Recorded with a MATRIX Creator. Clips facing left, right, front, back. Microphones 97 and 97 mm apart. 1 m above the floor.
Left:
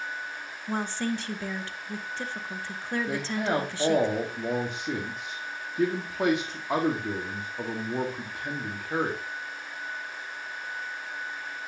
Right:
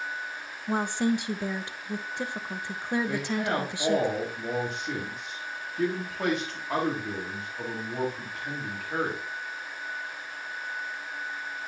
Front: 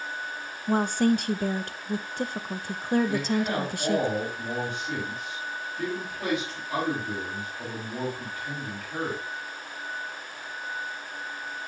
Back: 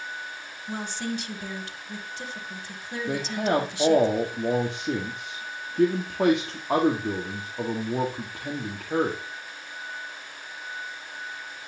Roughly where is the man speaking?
Behind.